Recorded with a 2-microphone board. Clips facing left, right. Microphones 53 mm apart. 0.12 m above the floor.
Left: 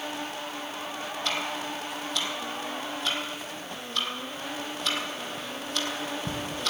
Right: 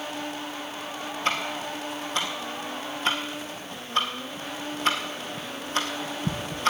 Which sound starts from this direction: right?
Ticking, at 1.2 s.